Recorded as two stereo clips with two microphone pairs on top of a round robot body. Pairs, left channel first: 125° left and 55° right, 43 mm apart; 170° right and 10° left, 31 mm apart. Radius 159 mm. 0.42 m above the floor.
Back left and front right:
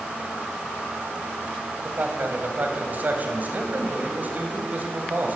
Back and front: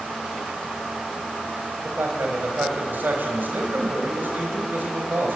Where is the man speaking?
10° right, 4 m.